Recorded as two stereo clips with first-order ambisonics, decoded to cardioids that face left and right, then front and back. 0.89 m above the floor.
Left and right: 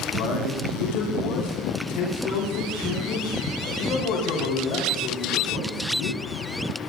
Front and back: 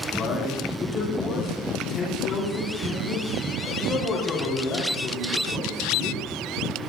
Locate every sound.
0.1 s a man speaking: 65° left, 6.5 m